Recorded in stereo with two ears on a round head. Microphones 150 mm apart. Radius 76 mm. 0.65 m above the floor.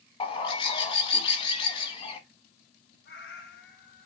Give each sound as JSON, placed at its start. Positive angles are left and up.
{"t": 0.2, "sound": "a bird", "side_deg": 30, "distance_m": 0.8}
{"t": 3.0, "sound": "a cat meowing", "side_deg": 55, "distance_m": 2.5}